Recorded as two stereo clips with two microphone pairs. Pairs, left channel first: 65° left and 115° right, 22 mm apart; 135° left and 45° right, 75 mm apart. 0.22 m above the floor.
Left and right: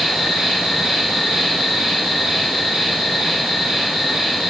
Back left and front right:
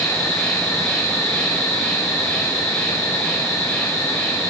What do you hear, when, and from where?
0.0 s an insect: 80° left, 1.8 m